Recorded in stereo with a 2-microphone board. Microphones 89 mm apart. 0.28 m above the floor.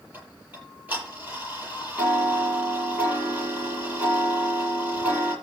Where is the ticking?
20° right (ahead or behind), 9 m.